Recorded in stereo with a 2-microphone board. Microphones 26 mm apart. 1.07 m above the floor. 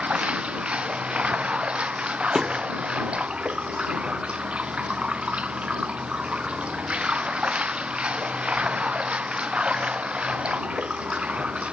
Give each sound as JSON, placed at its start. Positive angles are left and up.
{"t": 0.0, "sound": "running water", "side_deg": -50}
{"t": 2.4, "sound": "a thud", "side_deg": -5}